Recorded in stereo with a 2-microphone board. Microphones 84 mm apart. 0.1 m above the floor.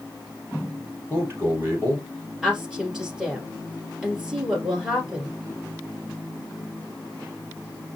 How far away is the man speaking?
About 3 m.